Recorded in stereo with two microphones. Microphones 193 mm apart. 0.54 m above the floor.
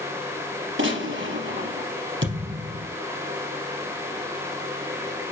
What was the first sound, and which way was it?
A gunshot, 90° right.